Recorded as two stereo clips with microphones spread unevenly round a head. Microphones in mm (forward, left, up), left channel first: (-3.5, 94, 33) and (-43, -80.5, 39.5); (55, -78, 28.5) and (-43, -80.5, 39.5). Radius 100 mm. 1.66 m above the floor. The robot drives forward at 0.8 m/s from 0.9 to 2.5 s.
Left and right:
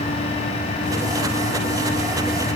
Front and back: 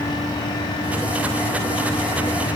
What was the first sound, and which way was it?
Only background noise.